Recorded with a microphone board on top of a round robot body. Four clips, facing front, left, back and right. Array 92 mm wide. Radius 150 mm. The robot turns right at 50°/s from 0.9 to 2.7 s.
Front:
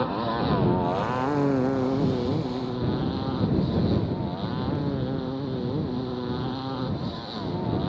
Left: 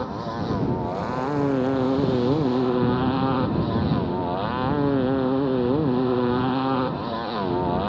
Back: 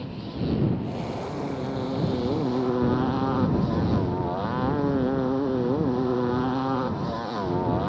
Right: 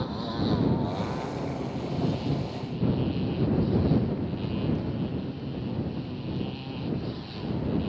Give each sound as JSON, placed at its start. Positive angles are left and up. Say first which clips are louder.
{"t": 0.0, "sound": "a motorcycle", "louder": "left 2 dB, front 6 dB", "azimuth_deg": 25}